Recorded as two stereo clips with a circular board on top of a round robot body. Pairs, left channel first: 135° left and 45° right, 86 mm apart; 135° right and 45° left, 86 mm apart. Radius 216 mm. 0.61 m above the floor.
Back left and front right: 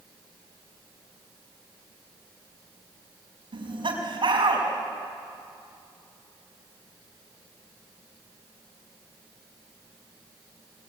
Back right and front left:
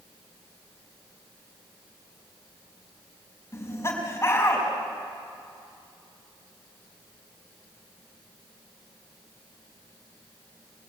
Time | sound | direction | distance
3.5 | laughter | 75° right | 5.5 m